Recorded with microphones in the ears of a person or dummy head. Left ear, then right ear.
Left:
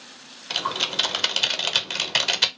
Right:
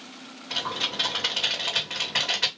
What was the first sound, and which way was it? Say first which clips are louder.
Typing on a keyboard: left 4 dB; 70° left (ahead or behind).